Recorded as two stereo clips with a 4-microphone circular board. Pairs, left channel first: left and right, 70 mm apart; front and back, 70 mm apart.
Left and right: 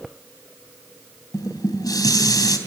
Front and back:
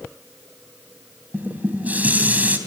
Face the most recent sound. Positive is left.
turn(degrees=115)